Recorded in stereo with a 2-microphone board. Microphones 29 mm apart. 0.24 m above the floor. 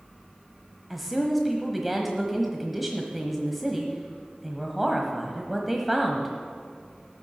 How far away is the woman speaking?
About 1.2 m.